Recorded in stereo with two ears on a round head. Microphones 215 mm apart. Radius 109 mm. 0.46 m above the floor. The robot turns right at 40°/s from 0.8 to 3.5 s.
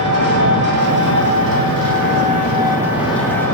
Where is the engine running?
95° right, 2 m; by 3.5 s 15° left, 2 m.